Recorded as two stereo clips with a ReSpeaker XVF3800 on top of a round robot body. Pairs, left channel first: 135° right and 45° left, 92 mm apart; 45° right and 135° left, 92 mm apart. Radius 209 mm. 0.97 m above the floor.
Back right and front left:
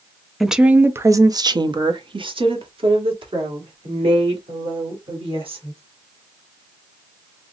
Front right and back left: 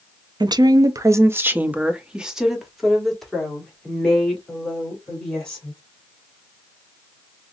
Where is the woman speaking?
135° left, 0.7 m; by 5.8 s 35° left, 2.5 m.